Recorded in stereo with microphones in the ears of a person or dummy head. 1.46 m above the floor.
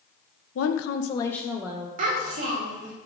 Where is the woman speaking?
75° left (ahead or behind), 0.8 m; by 1.9 s 20° right (ahead or behind), 1.0 m.